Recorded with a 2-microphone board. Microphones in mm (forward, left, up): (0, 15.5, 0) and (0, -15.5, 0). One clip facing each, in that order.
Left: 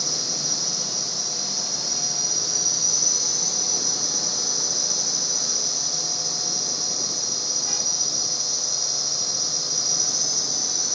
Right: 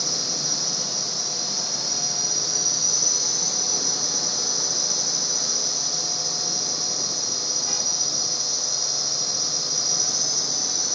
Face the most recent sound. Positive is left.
turn(degrees=-5)  # may be behind; listen again after turning